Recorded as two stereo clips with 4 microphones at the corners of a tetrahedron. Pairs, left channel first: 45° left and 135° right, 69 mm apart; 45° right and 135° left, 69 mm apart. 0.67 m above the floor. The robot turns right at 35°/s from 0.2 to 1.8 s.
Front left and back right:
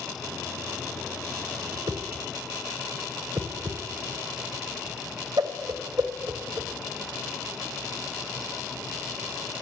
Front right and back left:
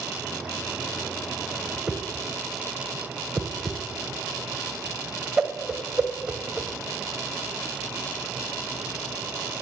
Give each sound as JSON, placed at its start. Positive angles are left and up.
{"t": 1.7, "sound": "a whoosh", "azimuth_deg": -150, "distance_m": 1.3}